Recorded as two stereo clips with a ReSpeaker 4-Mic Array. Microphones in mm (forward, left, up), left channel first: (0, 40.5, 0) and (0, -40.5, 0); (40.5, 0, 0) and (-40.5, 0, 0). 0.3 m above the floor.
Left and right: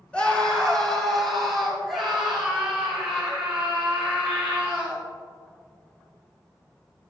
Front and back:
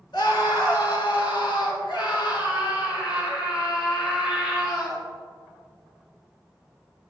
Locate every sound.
0.1 s a scream: 15° left, 3.5 m; by 5.0 s 15° right, 9.5 m